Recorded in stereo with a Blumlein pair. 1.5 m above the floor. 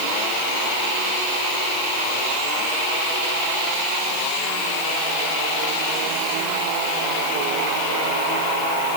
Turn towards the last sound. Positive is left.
No sound to turn to.